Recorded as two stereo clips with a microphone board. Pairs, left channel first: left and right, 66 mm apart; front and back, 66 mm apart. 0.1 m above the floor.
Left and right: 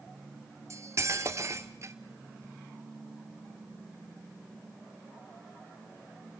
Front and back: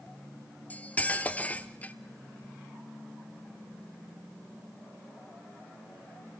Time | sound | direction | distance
0.7 | cutlery clinking | 60° right | 1.1 m